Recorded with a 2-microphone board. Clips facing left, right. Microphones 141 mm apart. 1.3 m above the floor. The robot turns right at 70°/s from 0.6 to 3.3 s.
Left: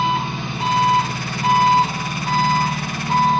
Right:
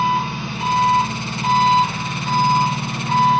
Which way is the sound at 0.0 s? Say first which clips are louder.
Right 1 dB; 65° left.